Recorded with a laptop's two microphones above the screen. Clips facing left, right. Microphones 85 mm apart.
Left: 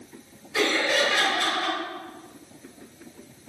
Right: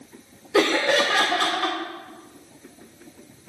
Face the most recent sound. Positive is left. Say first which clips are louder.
# right 4 dB
turn(degrees=-80)